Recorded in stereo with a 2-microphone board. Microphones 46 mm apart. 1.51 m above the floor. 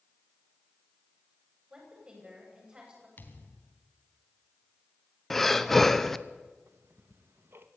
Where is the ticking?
60° right (ahead or behind), 1.7 m.